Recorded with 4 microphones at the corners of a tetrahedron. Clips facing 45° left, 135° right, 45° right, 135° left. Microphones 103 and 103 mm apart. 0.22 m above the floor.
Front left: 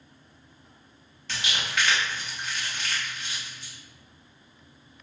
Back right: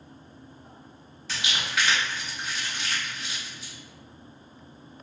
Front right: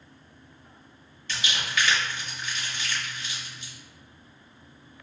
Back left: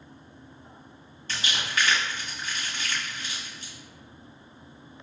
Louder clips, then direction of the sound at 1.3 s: Even, even; 145° left.